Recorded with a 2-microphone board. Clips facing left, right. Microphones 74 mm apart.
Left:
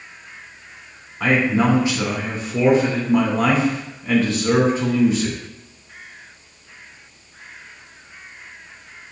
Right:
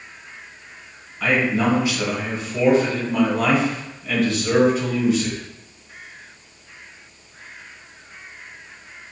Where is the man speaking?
40° left (ahead or behind), 1.9 m.